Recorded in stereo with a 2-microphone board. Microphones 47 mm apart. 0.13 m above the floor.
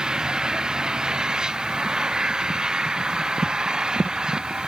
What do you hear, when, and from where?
0.0 s an engine running: 15° right (ahead or behind)